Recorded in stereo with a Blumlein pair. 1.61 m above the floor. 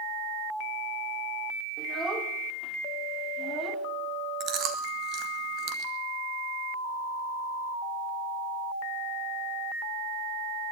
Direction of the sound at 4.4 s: 30° right.